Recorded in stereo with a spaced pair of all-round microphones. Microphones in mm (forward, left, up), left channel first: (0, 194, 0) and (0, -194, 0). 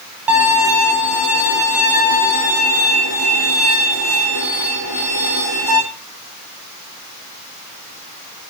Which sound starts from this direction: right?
A violin, at 0.3 s.